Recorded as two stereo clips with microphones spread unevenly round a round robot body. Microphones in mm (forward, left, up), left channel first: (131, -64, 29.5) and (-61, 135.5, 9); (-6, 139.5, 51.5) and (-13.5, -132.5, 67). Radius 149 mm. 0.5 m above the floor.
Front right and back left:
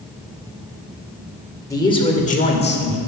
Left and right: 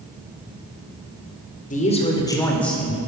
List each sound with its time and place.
1.7 s a man speaking: 35° left, 2 m; by 3.0 s 5° right, 2.5 m